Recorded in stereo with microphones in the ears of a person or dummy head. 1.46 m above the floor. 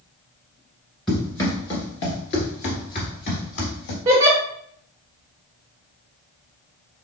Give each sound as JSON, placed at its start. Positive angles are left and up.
{"t": 1.1, "sound": "running footsteps", "side_deg": 5, "distance_m": 1.5}
{"t": 4.0, "sound": "a giggle", "side_deg": -15, "distance_m": 0.9}